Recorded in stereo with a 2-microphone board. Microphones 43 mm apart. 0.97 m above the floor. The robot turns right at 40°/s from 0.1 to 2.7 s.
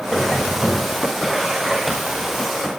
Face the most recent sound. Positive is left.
turn(degrees=-95)